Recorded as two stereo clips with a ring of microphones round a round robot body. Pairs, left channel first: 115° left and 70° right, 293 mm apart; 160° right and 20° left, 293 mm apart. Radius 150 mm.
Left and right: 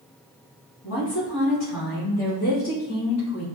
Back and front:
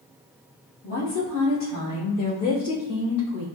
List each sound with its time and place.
0.8 s a woman speaking: 160° left, 1.7 m; by 3.5 s 155° left, 3.5 m